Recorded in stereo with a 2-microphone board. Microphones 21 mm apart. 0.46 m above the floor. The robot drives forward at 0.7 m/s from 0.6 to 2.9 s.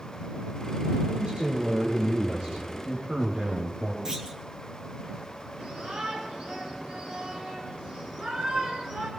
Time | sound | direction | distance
1.1 | a man speaking | 75° right (ahead or behind) | 5.5 m
4.0 | a clunk | 30° right (ahead or behind) | 2.5 m
5.6 | a shout | 80° right | 5 m